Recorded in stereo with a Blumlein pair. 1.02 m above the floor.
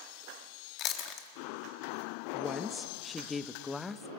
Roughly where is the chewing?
Ahead left.